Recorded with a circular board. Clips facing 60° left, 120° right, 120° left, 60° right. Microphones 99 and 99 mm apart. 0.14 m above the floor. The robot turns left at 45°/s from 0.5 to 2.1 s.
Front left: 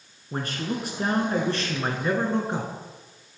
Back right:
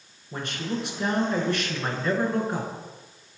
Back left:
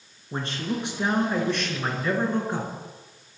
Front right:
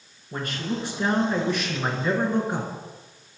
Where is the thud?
No thud in this recording.